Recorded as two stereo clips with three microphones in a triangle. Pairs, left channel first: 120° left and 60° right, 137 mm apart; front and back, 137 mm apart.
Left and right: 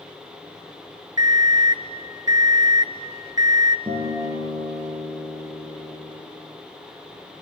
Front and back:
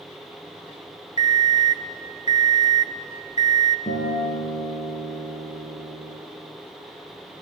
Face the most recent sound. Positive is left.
turn(degrees=-5)